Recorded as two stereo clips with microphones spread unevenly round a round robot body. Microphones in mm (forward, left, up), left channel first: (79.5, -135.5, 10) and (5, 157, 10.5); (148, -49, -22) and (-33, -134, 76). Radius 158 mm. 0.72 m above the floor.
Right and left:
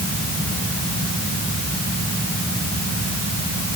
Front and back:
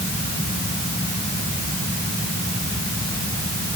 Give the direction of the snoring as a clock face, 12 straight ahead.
No snoring in this recording.